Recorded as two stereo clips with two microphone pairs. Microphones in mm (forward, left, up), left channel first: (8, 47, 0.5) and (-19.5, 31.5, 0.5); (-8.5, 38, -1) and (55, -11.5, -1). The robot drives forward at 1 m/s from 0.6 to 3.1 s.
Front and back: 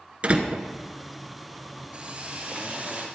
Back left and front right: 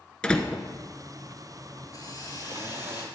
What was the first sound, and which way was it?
A door slam, 145° right.